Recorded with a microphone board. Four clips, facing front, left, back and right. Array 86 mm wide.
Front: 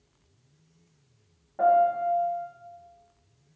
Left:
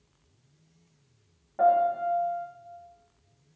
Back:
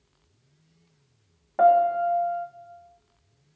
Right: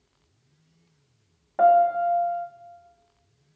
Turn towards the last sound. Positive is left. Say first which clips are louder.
# right 5 dB, back 3 dB
turn(degrees=-140)